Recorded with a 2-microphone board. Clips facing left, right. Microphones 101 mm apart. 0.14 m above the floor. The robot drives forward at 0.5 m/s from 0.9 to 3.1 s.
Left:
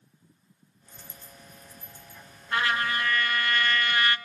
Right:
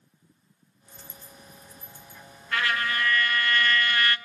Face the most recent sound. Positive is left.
turn(degrees=25)  # may be behind; listen again after turning